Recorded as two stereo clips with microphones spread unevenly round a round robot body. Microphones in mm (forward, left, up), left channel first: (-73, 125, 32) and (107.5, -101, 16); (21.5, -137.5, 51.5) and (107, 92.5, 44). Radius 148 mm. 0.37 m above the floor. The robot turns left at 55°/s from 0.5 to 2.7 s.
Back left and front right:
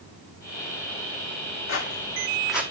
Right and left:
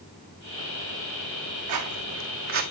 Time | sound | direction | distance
1.7 | footsteps | 85° left | 1.6 m